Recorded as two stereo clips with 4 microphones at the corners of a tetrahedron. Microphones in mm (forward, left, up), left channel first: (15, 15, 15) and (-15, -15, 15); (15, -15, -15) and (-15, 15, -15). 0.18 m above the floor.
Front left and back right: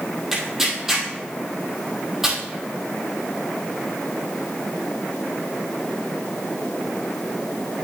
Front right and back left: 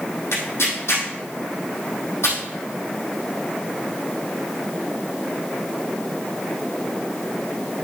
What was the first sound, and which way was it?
Tearing paper, 55° right.